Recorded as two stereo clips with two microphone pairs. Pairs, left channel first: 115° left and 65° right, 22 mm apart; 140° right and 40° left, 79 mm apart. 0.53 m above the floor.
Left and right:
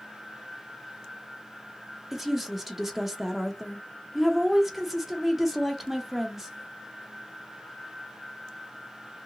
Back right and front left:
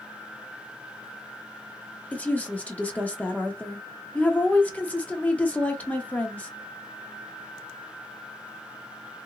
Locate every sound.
2.1 s a woman speaking: 145° right, 0.7 m